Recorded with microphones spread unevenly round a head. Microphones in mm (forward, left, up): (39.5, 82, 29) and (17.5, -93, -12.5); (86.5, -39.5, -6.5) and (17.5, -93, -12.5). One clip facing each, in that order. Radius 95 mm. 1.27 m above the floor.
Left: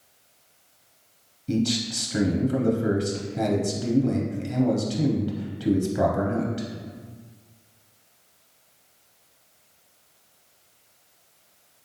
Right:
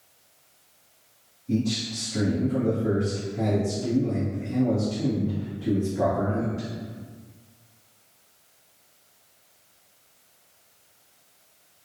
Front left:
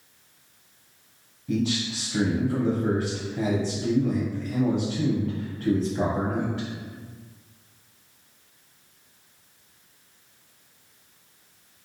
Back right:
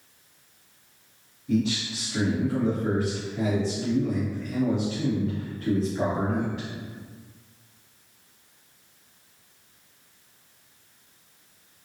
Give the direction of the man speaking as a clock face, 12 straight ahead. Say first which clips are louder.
Left 1 dB, back right 1 dB; 8 o'clock.